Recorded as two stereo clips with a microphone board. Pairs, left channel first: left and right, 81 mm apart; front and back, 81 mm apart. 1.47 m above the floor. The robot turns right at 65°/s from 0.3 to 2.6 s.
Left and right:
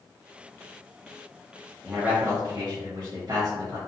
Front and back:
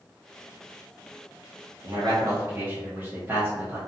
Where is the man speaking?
170° right, 0.7 m; by 3.8 s 120° right, 0.7 m.